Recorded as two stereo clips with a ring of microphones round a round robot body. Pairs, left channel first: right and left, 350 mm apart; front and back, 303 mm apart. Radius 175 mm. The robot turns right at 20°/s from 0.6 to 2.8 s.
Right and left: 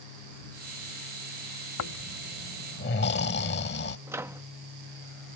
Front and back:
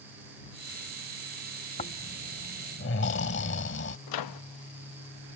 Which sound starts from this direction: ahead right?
Snoring, at 1.8 s.